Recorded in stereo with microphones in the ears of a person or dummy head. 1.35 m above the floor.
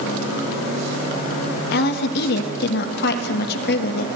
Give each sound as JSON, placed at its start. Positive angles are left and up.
{"t": 1.7, "sound": "a woman speaking", "side_deg": 60, "distance_m": 1.3}